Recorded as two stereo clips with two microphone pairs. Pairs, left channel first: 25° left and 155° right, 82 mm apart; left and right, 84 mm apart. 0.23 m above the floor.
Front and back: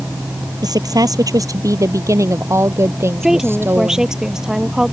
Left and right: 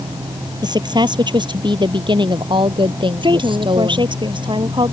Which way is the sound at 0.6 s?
120° right.